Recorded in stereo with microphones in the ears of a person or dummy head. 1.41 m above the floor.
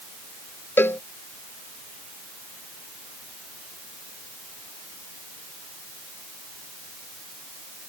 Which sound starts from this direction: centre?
A cowbell, at 0.8 s.